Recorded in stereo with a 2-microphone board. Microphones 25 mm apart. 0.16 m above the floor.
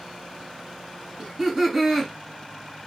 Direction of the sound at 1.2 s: 15° right (ahead or behind).